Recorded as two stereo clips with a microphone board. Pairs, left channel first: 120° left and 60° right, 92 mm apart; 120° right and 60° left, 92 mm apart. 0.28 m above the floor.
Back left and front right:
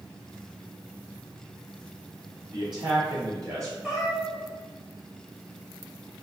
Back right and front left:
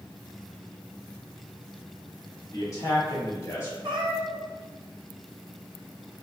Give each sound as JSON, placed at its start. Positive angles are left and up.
{"t": 2.5, "sound": "a man speaking", "azimuth_deg": -75, "distance_m": 1.9}
{"t": 3.8, "sound": "a cat meowing", "azimuth_deg": 35, "distance_m": 1.2}